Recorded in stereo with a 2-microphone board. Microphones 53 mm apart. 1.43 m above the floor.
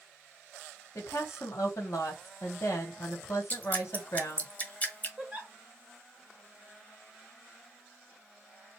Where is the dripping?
25° left (ahead or behind), 1.5 m.